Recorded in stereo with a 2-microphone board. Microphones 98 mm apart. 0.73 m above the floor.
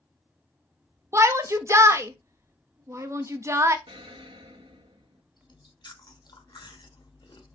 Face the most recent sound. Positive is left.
turn(degrees=50)  # may be behind; listen again after turning